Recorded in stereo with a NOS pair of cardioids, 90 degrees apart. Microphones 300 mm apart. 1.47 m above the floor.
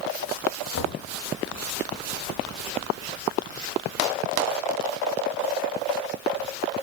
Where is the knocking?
55° left, 2.5 m.